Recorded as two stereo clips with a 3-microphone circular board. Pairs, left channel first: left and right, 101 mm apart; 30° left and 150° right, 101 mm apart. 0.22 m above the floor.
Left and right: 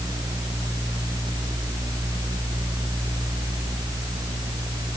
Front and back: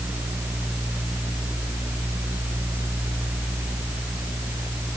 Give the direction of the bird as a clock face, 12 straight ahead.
No bird in this recording.